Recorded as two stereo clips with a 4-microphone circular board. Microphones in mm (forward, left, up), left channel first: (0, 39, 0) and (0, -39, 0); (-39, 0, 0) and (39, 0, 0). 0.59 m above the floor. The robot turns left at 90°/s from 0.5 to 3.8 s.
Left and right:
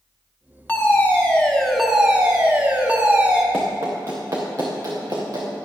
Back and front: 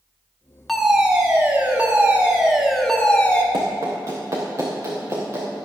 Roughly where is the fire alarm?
Left.